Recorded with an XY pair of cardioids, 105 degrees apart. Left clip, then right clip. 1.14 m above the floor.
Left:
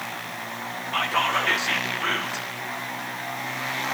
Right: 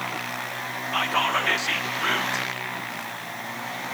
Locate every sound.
0.9 s whispering: 10° right, 0.8 m